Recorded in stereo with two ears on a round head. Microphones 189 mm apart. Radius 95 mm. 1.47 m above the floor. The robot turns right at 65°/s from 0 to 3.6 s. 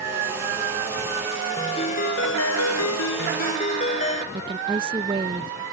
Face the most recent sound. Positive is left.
turn(degrees=-25)  # may be behind; listen again after turning